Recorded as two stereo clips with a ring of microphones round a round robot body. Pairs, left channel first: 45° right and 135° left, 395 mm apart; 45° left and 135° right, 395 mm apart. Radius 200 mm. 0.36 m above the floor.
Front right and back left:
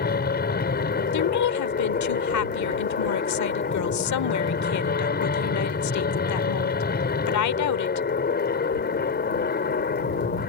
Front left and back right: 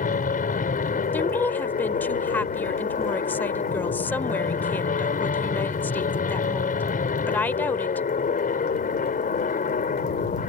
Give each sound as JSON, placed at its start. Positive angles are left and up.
{"t": 0.0, "sound": "an aircraft", "azimuth_deg": -5}
{"t": 1.1, "sound": "a woman speaking", "azimuth_deg": -40}